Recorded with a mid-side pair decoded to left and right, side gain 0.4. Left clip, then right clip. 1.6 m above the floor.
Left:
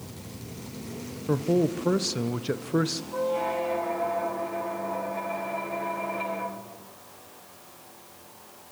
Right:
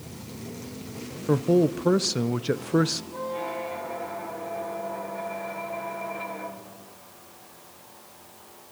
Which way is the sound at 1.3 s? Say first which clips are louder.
Right 3 dB; 25° right.